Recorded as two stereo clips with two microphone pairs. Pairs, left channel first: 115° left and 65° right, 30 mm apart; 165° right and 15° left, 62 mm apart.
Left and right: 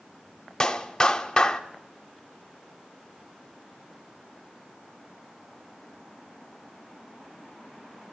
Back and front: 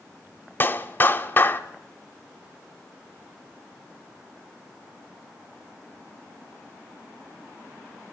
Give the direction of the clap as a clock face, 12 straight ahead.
6 o'clock.